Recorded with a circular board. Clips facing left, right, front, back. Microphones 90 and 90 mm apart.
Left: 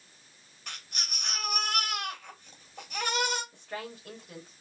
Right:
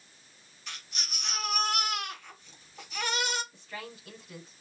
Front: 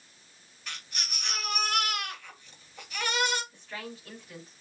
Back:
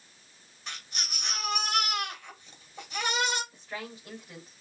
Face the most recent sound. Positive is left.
turn(degrees=105)